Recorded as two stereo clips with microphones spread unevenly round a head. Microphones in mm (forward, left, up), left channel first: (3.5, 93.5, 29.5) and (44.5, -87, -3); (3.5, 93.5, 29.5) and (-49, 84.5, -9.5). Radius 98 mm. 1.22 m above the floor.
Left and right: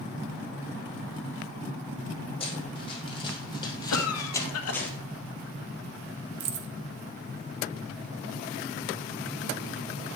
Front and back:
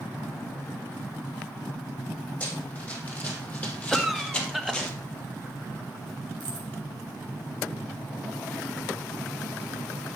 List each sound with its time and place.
2.4 s running footsteps: 50° left, 3.5 m; by 4.9 s 30° left, 1.8 m
3.9 s a cough: 105° left, 1.5 m
6.4 s keys jangling: 115° right, 0.8 m